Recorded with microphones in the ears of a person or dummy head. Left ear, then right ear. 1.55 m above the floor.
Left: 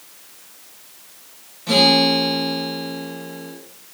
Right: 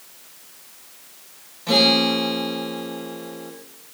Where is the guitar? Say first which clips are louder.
Left 2 dB; 15° right (ahead or behind), 2.5 m.